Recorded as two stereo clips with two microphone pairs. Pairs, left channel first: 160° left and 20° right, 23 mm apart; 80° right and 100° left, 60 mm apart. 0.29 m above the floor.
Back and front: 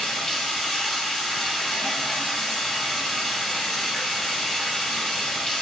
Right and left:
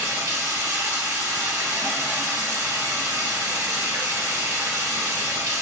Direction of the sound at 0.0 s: 90° left.